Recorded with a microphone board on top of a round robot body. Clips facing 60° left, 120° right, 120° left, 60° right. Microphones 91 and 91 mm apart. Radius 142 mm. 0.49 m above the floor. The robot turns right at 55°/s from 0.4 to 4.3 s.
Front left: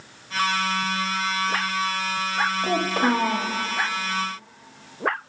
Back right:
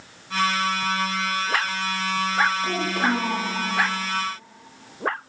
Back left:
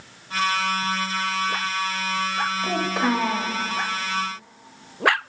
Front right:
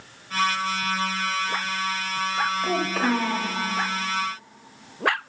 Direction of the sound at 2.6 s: 20° left.